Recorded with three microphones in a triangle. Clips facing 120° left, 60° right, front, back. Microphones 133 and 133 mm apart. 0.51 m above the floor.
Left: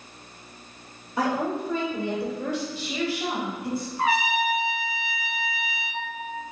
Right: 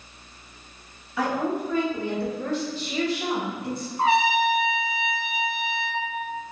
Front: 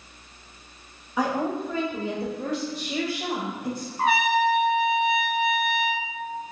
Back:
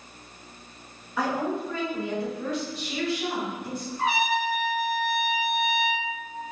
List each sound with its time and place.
1.2 s a woman speaking: 75° left, 1.3 m; by 3.9 s 30° left, 2.5 m
4.0 s a trumpet: 5° right, 0.5 m